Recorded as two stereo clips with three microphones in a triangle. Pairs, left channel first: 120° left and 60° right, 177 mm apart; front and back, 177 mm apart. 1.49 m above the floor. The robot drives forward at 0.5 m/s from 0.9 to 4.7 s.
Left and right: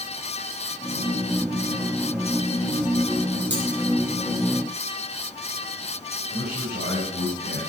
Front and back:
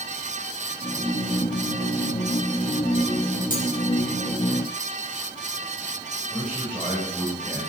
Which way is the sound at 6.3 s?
80° right.